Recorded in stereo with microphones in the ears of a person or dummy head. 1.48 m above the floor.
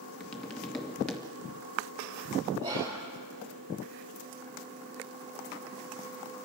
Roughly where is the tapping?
Centre.